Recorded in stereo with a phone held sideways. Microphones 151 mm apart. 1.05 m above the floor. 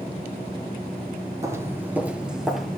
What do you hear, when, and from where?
1.4 s footsteps: 20° right (ahead or behind), 1.2 m; by 2.8 s centre (ahead or behind), 1.6 m